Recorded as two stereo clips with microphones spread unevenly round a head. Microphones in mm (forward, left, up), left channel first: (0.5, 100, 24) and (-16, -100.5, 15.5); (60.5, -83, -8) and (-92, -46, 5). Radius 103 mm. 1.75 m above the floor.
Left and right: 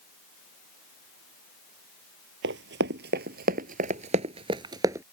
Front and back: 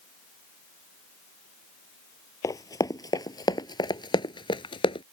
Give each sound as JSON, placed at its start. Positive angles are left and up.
{"t": 2.4, "sound": "running footsteps", "azimuth_deg": -80}